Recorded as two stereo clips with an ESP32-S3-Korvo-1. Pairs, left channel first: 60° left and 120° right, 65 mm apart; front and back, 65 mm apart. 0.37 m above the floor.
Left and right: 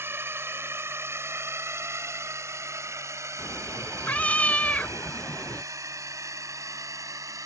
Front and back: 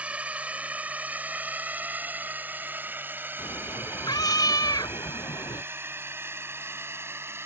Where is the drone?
125° right; by 7.5 s 135° right.